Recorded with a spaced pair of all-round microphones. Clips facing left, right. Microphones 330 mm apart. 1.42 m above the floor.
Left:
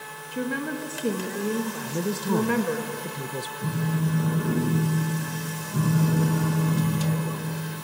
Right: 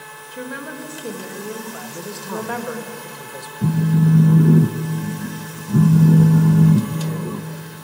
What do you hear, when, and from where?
0.3 s a woman speaking: 35° left (ahead or behind), 2 m
1.8 s a man speaking: 45° left (ahead or behind), 1.0 m
3.6 s a phone buzzing: 55° right (ahead or behind), 1.2 m